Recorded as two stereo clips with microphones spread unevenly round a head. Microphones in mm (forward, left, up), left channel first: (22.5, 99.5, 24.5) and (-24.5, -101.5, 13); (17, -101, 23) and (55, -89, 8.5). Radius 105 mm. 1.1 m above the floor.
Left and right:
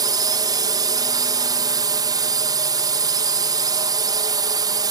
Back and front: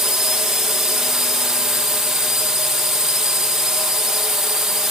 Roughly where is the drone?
Ahead right.